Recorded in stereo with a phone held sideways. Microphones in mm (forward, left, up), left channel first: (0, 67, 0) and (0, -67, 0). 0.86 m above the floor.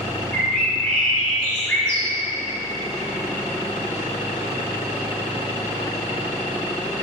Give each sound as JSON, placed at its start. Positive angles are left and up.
{"t": 0.3, "sound": "a bird", "side_deg": 10, "distance_m": 2.5}